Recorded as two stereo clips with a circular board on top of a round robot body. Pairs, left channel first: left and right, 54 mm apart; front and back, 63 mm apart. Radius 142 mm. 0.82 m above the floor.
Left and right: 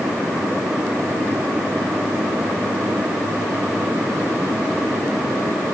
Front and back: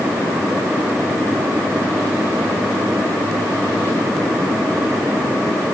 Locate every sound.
Only background noise.